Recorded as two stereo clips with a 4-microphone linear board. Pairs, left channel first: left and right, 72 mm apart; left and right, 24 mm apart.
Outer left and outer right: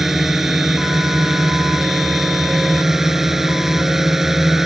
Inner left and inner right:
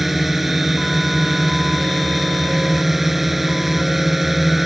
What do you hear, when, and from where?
0.0 s a drone: 5° right (ahead or behind)